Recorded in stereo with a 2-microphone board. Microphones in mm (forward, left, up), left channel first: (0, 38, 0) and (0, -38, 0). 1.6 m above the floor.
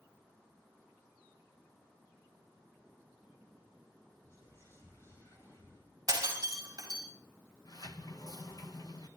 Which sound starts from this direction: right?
Breaking glass, at 6.1 s.